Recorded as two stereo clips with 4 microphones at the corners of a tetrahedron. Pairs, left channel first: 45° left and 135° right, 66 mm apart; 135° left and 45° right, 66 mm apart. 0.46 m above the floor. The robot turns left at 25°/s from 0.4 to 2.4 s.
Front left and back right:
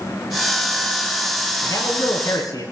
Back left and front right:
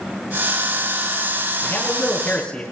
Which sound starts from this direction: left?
A man speaking, at 1.6 s.